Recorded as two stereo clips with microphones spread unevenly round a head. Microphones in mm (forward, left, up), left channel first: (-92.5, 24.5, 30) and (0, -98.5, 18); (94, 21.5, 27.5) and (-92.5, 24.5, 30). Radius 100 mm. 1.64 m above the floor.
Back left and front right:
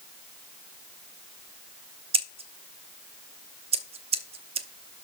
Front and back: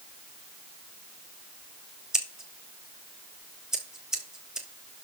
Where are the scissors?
95° right, 1.0 m.